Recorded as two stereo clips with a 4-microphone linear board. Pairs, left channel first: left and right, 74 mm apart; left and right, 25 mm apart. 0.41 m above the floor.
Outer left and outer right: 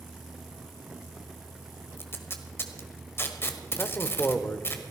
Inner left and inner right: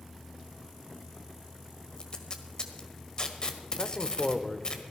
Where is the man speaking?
30° left (ahead or behind), 1.0 m.